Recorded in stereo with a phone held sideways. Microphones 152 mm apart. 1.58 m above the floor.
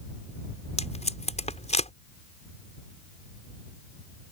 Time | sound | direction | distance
0.8 | tape being pulled | 45° left (ahead or behind) | ?